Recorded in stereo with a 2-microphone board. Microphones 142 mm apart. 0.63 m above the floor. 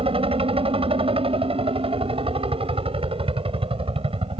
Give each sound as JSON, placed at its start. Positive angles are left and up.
{"t": 0.0, "sound": "a helicopter", "side_deg": -40}